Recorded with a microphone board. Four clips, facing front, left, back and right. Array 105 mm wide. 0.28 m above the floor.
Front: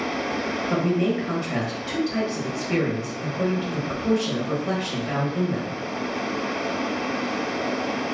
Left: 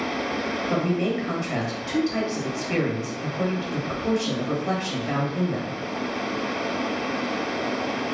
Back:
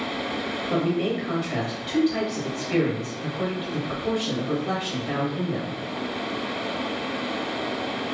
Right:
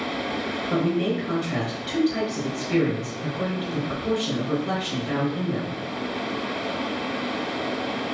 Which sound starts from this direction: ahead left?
A man speaking, at 0.7 s.